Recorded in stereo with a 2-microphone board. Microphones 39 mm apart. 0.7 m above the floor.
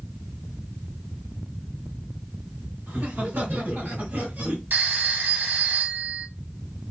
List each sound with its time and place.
2.9 s laughter: 60° right (ahead or behind), 2.5 m; by 4.6 s 65° right (ahead or behind), 2 m
4.7 s a phone ringing: 55° right (ahead or behind), 1.4 m